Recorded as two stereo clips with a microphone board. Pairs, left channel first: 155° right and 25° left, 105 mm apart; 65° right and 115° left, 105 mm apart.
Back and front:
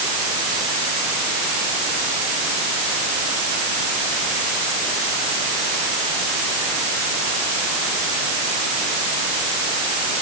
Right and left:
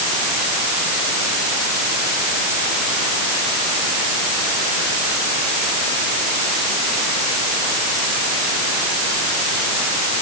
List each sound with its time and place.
Only background noise.